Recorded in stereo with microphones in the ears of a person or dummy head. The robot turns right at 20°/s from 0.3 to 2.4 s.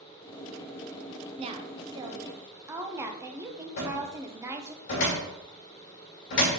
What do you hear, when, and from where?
1.4 s a woman speaking: 35° right (ahead or behind), 0.9 m; by 4.8 s 15° right (ahead or behind), 0.9 m
3.8 s a cupboard door: 50° left (ahead or behind), 2 m